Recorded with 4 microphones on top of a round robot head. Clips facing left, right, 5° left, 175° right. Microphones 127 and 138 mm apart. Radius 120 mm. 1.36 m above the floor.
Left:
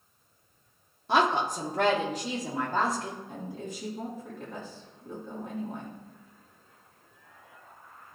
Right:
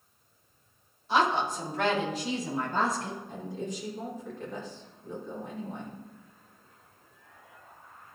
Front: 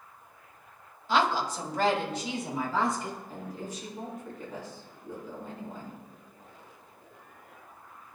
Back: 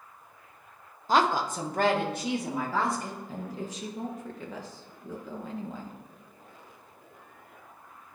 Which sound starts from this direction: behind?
A woman speaking, at 3.3 s.